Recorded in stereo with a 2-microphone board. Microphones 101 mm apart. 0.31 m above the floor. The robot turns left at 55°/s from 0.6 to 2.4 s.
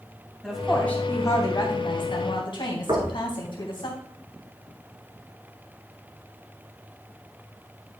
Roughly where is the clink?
I don't hear a clink.